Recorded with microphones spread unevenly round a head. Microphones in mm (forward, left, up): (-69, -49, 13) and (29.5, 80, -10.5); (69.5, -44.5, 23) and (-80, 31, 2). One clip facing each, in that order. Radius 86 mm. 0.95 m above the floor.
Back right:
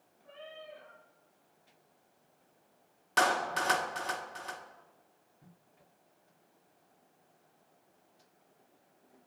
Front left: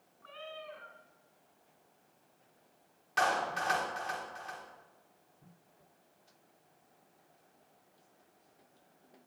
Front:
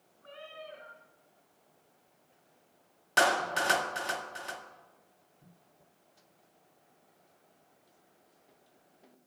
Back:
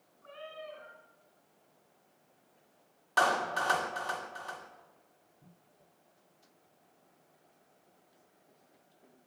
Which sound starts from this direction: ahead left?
A cat meowing, at 0.2 s.